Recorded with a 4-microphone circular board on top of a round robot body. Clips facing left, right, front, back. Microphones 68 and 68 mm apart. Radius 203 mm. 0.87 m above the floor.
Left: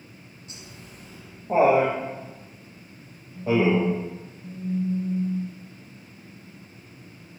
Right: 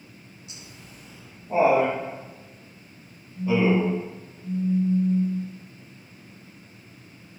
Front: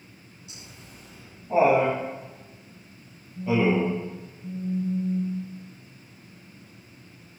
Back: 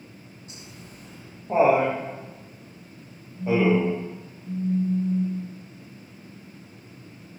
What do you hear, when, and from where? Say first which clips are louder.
0.5 s laughter: left 3 dB, back 2 dB; 135° left, 5 m; by 4.0 s 110° left, 5 m
3.4 s a phone buzzing: even, back 2 dB; 45° left, 3.5 m